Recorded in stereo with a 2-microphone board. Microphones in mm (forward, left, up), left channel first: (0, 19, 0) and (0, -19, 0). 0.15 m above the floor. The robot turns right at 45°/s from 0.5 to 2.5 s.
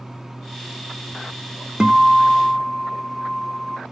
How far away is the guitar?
About 0.6 m.